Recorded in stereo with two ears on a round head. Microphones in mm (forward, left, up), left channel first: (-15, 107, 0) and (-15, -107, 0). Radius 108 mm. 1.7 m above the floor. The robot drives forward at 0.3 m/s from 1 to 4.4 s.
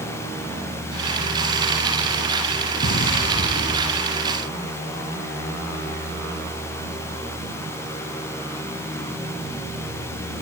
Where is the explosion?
35° left (ahead or behind); by 4.1 s 40° left (ahead or behind).